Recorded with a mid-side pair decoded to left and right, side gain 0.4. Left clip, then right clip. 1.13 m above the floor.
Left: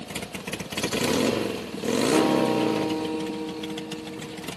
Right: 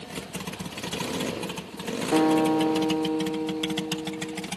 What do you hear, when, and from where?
2.1 s a guitar: 50° right, 1.5 m